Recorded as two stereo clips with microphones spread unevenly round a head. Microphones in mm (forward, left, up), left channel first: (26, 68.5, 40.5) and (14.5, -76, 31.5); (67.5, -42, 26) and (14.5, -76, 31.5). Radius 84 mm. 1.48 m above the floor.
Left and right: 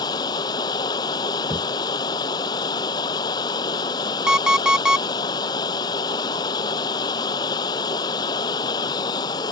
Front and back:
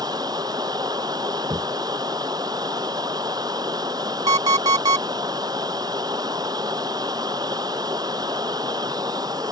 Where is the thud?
175° right.